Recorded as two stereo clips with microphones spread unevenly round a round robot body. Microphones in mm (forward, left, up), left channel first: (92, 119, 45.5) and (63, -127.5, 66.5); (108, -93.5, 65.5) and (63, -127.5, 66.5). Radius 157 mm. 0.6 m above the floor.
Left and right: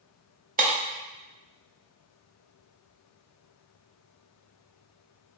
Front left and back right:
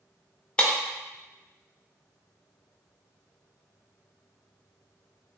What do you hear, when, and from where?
0.6 s breaking glass: 40° right, 0.7 m